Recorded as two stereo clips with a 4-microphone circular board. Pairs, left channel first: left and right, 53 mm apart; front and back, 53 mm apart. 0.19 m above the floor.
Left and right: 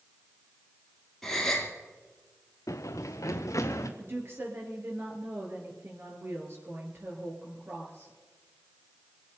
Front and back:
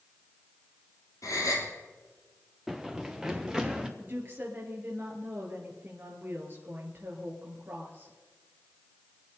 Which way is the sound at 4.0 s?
130° right.